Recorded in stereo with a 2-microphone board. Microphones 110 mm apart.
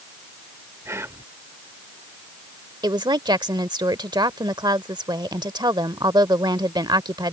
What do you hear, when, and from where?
0.8 s whispering: 20° right (ahead or behind)
2.8 s a woman speaking: 40° right (ahead or behind)